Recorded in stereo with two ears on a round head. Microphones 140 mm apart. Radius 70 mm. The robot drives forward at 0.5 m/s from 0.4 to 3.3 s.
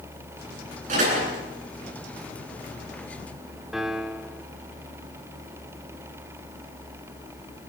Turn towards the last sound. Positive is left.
turn(degrees=0)  # may be behind; listen again after turning